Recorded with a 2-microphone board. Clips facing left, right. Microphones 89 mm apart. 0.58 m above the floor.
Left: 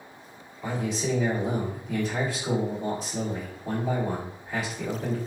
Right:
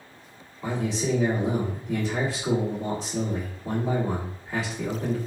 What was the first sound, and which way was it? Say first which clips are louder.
A man speaking: right 2 dB; 25° right (ahead or behind).